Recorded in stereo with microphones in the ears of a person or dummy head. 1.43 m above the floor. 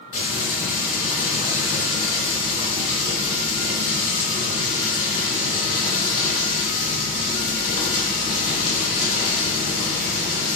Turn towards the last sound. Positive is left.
turn(degrees=45)  # may be behind; listen again after turning